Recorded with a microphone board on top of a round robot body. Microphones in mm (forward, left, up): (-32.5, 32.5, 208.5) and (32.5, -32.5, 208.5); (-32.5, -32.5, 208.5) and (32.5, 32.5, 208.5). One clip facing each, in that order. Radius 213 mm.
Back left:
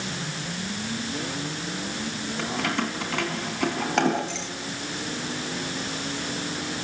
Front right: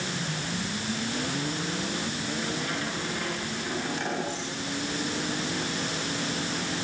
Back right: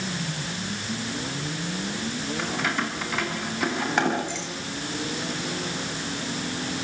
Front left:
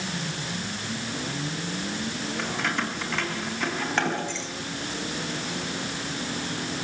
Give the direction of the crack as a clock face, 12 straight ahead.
I don't hear a crack.